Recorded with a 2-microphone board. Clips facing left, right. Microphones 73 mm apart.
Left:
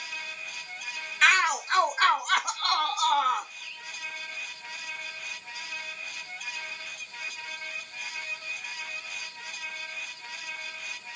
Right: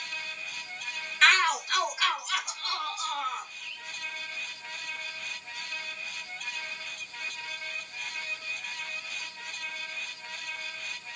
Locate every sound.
1.2 s a shout: 5° left (ahead or behind), 1.1 m; by 3.5 s 75° left (ahead or behind), 2 m
3.6 s a bird: 30° left (ahead or behind), 5 m